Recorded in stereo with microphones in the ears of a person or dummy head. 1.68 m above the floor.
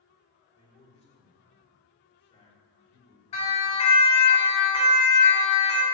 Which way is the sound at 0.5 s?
35° left (ahead or behind).